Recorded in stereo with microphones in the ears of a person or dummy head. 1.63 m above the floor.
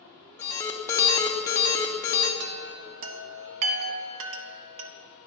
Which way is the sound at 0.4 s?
5° left (ahead or behind).